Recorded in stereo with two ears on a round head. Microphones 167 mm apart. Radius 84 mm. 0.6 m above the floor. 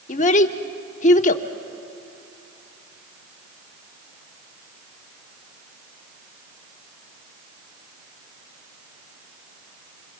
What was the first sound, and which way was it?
A child speaking, 40° left (ahead or behind).